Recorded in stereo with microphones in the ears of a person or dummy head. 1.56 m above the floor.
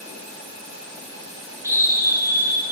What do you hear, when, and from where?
1.6 s a scream: 10° right (ahead or behind), 2.5 m